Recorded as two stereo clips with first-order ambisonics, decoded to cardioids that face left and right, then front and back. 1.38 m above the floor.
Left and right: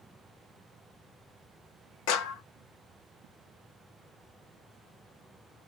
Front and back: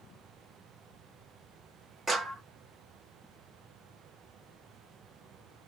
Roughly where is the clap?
Left.